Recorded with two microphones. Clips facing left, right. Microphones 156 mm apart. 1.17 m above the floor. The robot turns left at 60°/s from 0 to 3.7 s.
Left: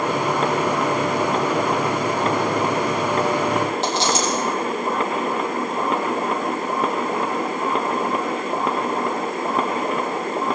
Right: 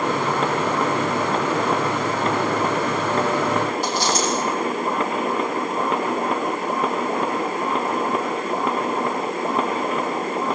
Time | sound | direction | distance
3.8 | a dropped coin | 25° left (ahead or behind) | 9.5 m